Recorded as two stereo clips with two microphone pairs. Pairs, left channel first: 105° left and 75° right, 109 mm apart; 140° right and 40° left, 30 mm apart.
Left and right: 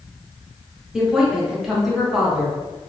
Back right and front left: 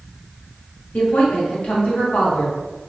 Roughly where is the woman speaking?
Behind.